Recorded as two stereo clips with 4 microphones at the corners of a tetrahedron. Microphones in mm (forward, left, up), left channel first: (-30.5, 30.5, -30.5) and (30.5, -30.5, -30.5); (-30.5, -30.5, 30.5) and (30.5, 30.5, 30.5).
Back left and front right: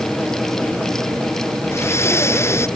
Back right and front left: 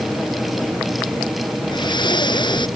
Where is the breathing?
165° right.